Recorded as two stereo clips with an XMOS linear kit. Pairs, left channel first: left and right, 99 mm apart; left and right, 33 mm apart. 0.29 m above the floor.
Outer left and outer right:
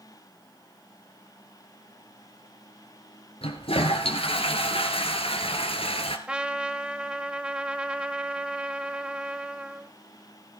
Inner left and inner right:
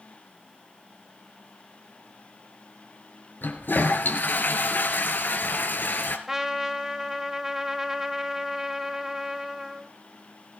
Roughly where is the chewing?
I don't hear chewing.